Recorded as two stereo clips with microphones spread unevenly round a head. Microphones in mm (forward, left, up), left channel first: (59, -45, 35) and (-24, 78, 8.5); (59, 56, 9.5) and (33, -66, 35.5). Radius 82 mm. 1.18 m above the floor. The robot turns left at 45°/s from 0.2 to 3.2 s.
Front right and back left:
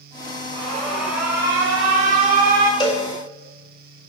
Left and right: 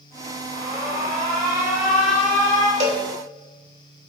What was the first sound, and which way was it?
An alarm, 125° right.